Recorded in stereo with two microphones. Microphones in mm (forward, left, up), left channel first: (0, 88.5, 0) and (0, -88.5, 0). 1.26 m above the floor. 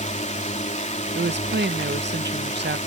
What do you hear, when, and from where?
0.0 s a drone: 45° left (ahead or behind)
1.1 s a woman speaking: 80° right